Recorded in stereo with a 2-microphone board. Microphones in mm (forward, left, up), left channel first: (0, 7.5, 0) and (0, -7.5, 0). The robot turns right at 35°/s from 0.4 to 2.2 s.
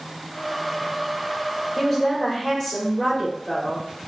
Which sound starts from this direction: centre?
A woman speaking, at 1.8 s.